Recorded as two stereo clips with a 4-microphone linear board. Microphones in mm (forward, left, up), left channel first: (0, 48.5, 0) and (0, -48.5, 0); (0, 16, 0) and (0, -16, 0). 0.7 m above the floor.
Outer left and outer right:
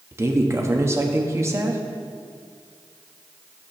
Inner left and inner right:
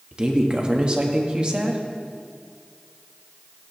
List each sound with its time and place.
0.1 s a woman speaking: 30° right (ahead or behind), 1.0 m